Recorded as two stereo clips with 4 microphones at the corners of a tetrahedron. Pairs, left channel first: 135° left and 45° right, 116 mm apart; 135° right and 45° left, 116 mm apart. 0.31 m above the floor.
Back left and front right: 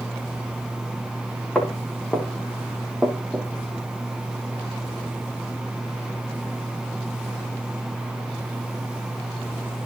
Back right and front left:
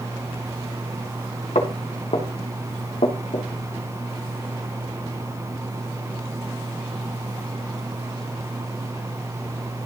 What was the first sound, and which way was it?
Footsteps, 140° right.